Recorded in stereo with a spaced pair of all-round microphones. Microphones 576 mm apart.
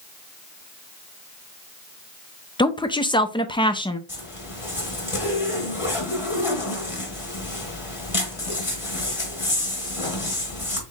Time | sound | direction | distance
2.6 | a woman speaking | 10° left (ahead or behind) | 0.5 m
4.1 | a zipper | 65° left (ahead or behind) | 1.9 m